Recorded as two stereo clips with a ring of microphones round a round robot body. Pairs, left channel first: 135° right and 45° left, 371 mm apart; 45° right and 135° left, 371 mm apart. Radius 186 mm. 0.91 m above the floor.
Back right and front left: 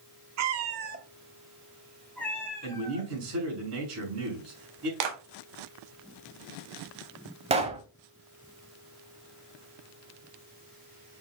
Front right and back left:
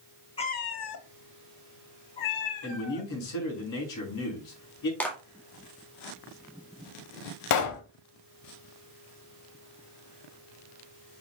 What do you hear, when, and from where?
0.4 s a cat meowing: 25° left, 0.8 m; by 3.1 s 55° right, 2 m
2.6 s a man speaking: 10° right, 5 m
5.0 s a clap: 40° left, 1.9 m
7.5 s a pop: 25° right, 0.9 m